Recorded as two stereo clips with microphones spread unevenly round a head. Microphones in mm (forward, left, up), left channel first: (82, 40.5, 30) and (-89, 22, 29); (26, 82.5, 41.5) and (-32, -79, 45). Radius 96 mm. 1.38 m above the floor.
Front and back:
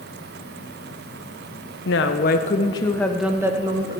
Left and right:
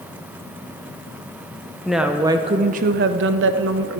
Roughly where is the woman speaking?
Ahead.